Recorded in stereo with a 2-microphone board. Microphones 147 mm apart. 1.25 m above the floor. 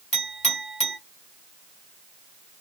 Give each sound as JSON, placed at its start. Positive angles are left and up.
{"t": 0.1, "sound": "a clink", "side_deg": 45, "distance_m": 1.7}